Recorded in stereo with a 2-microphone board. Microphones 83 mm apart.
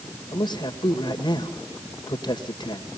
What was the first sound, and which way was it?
A man speaking, 60° left (ahead or behind).